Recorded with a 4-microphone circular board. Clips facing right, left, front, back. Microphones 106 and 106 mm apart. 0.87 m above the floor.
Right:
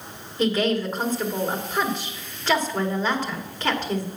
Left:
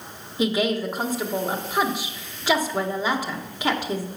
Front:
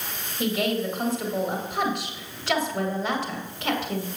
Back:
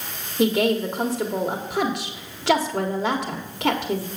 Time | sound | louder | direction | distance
0.4 | a woman speaking | right 1 dB, back 6 dB | 170° left | 1.6 m